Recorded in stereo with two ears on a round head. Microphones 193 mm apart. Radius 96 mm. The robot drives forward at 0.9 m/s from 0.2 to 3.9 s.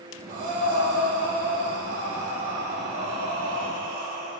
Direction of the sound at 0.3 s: 65° right (ahead or behind).